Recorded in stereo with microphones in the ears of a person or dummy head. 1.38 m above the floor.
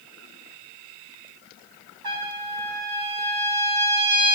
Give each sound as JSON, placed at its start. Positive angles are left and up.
{"t": 2.0, "sound": "a trumpet", "side_deg": -50, "distance_m": 3.0}